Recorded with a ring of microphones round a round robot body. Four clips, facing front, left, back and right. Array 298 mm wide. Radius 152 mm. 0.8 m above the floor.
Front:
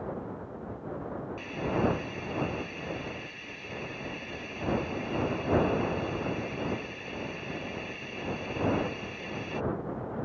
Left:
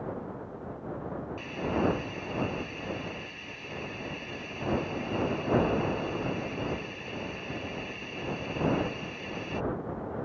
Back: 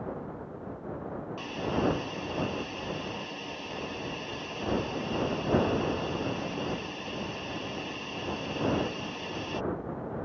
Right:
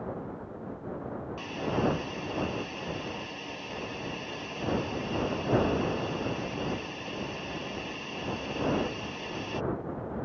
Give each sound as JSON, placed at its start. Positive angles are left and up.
{"t": 1.4, "sound": "a hiss", "azimuth_deg": -150}